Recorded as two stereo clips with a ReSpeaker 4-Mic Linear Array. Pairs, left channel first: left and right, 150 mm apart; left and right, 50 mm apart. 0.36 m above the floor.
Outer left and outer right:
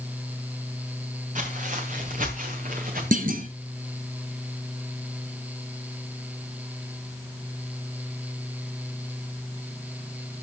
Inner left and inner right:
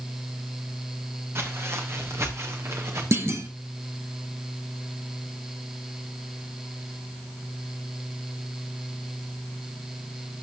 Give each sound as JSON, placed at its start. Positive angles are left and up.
{"t": 1.4, "sound": "footsteps", "side_deg": -65, "distance_m": 3.5}
{"t": 3.1, "sound": "a clunk", "side_deg": -65, "distance_m": 1.6}